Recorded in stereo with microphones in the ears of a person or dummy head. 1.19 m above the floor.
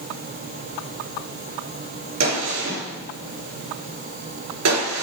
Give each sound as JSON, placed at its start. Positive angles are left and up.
{"t": 2.2, "sound": "a gunshot", "side_deg": -80, "distance_m": 3.0}